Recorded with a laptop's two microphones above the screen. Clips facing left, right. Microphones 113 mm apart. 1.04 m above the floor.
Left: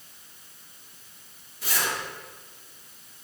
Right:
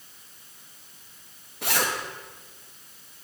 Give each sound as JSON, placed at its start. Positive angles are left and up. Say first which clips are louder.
{"t": 1.6, "sound": "a zipper", "louder": "right 3 dB", "side_deg": -75, "distance_m": 1.3}